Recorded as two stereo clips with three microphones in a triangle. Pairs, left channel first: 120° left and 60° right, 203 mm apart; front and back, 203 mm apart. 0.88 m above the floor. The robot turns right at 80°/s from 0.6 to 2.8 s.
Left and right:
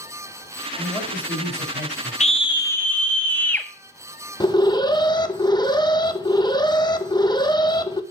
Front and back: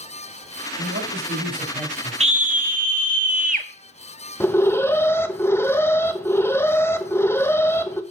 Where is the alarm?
70° left, 0.8 m.